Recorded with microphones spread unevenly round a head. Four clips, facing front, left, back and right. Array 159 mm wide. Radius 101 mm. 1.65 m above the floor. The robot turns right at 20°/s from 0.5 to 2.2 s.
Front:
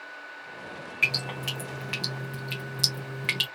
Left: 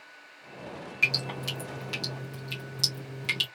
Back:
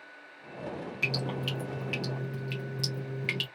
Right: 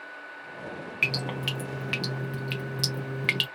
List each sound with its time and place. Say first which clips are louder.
1.0 s dripping: right 2 dB, front 1 dB; 125° right, 0.7 m; by 3.5 s 100° right, 0.7 m